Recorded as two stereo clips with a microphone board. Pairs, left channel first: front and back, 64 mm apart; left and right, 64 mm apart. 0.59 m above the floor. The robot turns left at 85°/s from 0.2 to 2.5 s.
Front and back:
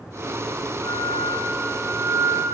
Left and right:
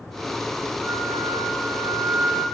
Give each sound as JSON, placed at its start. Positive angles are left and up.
{"t": 0.8, "sound": "a flute", "azimuth_deg": -10, "distance_m": 2.5}